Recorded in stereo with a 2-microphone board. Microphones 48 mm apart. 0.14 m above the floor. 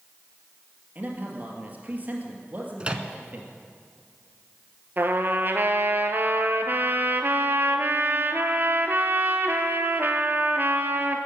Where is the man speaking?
35° right (ahead or behind), 2.5 m.